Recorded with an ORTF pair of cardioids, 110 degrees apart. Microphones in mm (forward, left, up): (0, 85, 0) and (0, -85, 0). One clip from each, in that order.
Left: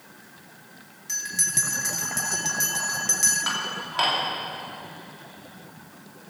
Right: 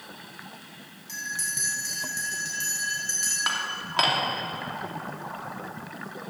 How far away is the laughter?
No laughter in this recording.